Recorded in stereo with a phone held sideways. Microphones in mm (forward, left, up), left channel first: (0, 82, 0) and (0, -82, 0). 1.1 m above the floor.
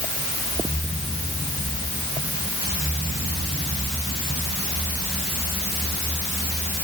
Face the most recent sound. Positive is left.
No sound to turn to.